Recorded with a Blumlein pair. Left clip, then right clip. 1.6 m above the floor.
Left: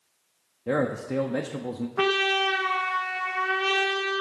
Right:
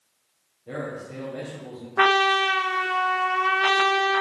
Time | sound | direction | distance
0.7 | a man speaking | 55° left | 0.5 m
2.0 | a trumpet | 15° right | 0.5 m